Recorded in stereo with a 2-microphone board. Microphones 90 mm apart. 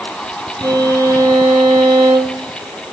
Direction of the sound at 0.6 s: 50° right (ahead or behind).